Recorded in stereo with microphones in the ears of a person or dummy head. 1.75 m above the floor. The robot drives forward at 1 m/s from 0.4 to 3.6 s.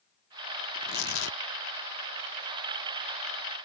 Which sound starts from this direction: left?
Tearing paper, at 0.8 s.